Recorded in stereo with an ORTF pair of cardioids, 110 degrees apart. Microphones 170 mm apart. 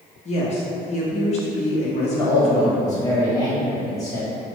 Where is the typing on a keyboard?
I don't hear typing on a keyboard.